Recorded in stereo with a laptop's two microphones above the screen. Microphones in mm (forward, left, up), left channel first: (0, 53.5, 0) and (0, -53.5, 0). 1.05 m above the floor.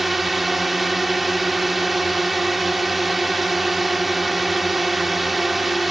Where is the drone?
Centre (ahead or behind).